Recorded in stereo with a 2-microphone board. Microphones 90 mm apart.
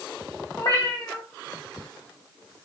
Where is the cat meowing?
40° left (ahead or behind), 0.9 m.